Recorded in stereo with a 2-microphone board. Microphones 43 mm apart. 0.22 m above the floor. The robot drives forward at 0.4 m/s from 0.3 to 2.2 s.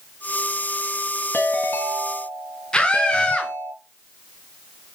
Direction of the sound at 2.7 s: 25° left (ahead or behind).